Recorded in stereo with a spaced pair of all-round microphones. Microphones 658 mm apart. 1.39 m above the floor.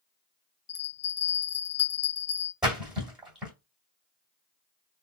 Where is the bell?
20° left (ahead or behind), 2 m.